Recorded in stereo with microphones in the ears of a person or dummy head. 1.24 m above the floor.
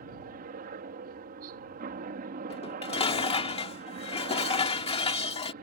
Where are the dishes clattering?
25° left (ahead or behind).